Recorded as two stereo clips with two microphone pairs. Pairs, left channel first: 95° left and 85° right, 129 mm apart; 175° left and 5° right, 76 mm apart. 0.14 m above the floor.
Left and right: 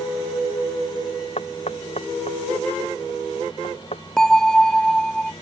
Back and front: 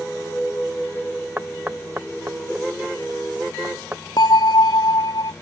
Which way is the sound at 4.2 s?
175° left.